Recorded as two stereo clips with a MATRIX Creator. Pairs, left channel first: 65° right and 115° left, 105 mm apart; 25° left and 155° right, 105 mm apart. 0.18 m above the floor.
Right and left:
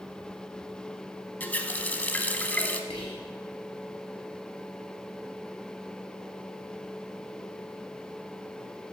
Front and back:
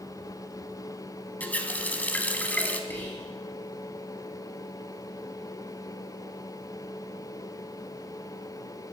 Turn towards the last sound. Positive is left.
turn(degrees=-45)